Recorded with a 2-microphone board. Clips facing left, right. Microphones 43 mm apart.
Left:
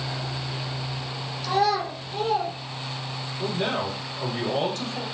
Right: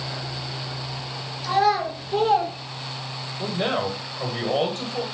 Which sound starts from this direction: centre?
A child speaking, at 1.4 s.